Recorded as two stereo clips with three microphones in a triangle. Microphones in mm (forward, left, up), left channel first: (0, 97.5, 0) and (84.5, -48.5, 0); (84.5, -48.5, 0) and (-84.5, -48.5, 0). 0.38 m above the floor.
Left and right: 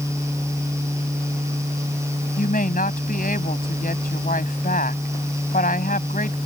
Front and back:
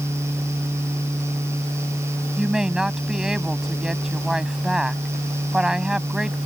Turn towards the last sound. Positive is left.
turn(degrees=95)